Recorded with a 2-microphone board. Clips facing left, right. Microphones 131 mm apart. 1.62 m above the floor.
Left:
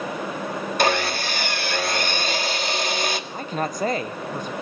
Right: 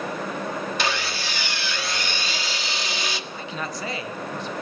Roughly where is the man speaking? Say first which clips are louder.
Left 5 dB; left.